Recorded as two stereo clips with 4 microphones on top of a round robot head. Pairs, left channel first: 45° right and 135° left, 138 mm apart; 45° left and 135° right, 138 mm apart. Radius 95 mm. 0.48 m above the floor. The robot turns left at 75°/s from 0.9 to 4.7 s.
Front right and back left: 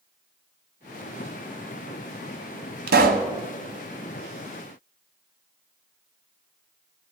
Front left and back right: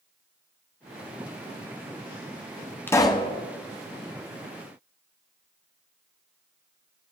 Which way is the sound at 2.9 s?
120° left.